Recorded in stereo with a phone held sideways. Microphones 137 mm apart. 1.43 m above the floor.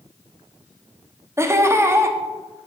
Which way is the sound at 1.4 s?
20° right (ahead or behind).